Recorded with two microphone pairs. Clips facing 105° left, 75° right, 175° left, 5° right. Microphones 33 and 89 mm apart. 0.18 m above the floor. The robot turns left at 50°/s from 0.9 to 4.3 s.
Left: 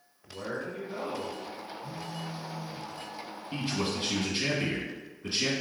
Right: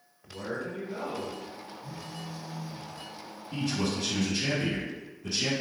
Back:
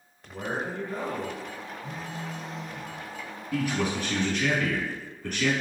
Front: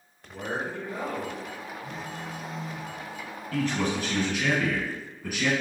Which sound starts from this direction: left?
A man speaking, at 3.5 s.